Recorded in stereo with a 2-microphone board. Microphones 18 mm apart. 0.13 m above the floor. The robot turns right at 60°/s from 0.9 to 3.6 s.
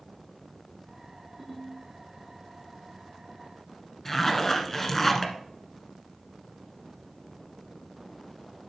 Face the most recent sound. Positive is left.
turn(degrees=20)  # may be behind; listen again after turning